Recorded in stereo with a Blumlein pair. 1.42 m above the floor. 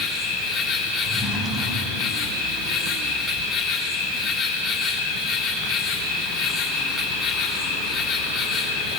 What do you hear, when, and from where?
0.0 s an insect: 20° left, 4.5 m
1.0 s a drawer: 10° right, 6.5 m